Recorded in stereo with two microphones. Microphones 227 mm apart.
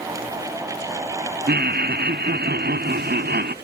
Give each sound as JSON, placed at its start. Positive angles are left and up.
{"t": 1.5, "sound": "laughter", "side_deg": -45, "distance_m": 0.6}